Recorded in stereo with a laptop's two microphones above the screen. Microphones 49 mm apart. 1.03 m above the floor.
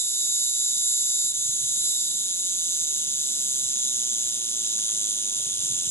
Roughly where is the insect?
Left.